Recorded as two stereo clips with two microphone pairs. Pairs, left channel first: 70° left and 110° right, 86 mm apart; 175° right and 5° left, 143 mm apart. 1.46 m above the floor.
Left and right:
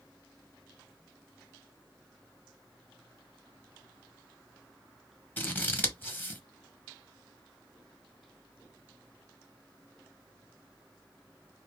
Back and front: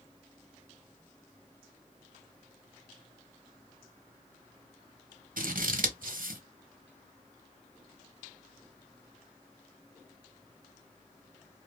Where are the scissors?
Straight ahead, 0.8 m.